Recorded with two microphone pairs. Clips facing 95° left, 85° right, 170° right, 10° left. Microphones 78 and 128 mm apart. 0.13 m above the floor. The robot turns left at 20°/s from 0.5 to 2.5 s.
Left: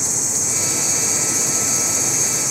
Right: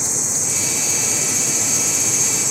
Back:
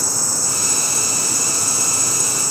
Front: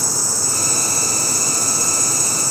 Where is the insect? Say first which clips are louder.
Even, front 1 dB; 105° right, 0.8 m; by 2.5 s 145° right, 0.8 m.